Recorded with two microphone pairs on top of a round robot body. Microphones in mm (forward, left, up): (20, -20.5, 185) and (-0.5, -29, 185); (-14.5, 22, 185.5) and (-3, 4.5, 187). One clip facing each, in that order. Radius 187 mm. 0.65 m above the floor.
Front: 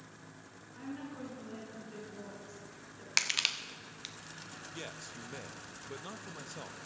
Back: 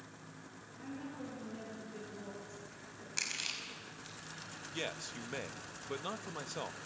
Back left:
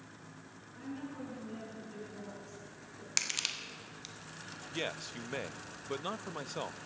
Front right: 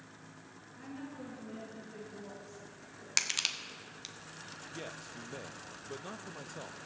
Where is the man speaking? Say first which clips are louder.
Back 6 dB, back left 8 dB; 145° left, 0.8 m.